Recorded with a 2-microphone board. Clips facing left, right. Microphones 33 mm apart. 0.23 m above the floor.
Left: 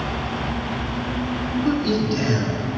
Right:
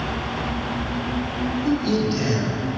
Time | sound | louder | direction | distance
1.6 | a man speaking | even | 20° left (ahead or behind) | 1.3 m